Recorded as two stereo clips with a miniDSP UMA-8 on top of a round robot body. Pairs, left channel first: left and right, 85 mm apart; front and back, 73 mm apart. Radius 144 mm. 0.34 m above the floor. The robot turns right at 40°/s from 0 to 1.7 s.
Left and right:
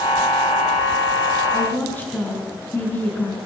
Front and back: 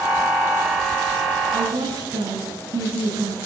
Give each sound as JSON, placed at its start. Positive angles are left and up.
{"t": 1.5, "sound": "a woman speaking", "azimuth_deg": 150, "distance_m": 5.0}